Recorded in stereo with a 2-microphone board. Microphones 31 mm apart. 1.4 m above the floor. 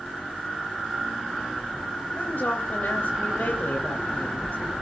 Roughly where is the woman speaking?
Left.